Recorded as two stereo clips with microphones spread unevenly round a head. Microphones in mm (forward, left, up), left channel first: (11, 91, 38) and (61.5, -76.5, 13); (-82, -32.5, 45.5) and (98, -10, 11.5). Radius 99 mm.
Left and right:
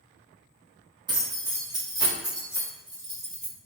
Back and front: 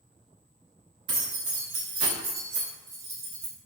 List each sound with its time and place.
1.1 s keys jangling: 10° right, 1.1 m; by 3.5 s 5° right, 2.5 m